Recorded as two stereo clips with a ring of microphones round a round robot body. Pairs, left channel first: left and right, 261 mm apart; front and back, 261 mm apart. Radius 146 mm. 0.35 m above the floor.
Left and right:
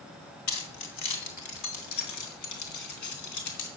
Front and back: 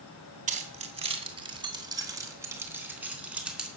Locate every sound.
0.5 s keys jangling: 120° left, 2.5 m; by 3.7 s 95° left, 3.5 m